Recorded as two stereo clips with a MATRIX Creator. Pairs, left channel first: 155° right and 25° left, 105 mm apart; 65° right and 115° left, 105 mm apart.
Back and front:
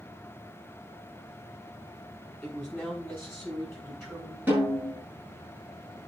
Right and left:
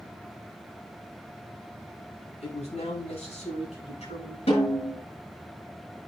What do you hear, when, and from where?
2.4 s a man speaking: 75° right, 8.5 m; by 4.4 s 70° right, 9.5 m
4.5 s a snare drum: 50° right, 8.5 m